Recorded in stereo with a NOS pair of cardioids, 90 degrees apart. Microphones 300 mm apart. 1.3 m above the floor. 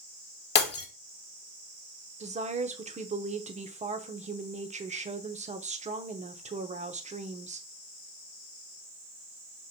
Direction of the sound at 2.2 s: 20° right.